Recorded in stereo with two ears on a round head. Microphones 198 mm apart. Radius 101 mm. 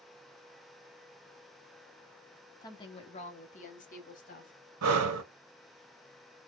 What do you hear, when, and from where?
2.6 s a woman speaking: 20° left (ahead or behind), 1.1 m; by 4.5 s 40° left (ahead or behind), 1.7 m
4.8 s breathing: 80° right, 0.8 m